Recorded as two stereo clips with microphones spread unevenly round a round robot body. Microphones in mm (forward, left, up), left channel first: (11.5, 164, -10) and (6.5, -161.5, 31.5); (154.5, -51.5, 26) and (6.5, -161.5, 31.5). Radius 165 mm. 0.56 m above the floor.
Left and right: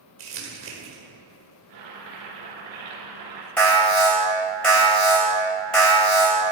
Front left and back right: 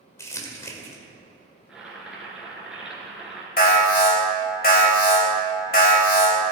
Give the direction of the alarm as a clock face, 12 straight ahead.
12 o'clock.